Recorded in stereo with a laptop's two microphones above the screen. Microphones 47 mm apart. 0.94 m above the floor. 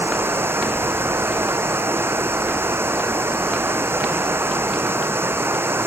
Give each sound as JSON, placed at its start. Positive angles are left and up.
{"t": 0.0, "sound": "running water", "side_deg": -60}